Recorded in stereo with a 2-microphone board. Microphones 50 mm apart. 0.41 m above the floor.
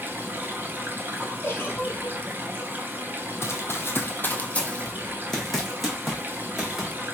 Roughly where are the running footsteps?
Left.